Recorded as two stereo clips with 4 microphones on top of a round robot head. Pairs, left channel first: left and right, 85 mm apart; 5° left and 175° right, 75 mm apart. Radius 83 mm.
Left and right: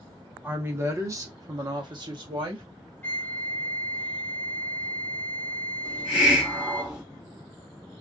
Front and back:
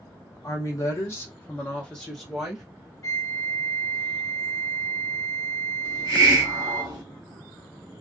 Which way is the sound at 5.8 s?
175° right.